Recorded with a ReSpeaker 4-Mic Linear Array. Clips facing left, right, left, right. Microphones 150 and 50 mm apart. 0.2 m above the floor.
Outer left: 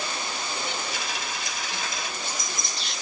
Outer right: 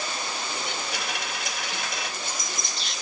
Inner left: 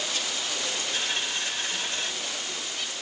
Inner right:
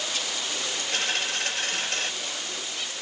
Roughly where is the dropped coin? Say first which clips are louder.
Outer right 1 dB, inner right 5 dB; right.